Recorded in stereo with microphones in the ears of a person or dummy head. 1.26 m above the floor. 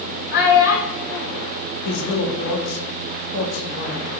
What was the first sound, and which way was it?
A child speaking, 65° left (ahead or behind).